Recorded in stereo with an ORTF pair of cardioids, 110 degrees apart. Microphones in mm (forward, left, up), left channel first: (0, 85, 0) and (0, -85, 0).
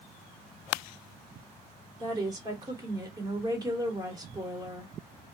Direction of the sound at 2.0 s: 25° right.